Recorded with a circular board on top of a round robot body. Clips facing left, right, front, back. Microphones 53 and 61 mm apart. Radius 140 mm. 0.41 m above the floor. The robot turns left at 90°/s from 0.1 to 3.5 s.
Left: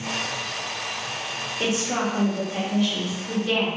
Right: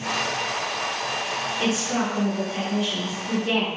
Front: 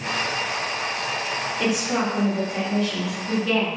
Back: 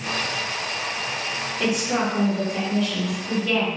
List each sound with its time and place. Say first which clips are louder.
1.6 s a woman speaking: left 1 dB, back 1 dB; 75° left, 1.7 m; by 3.7 s 95° right, 1.7 m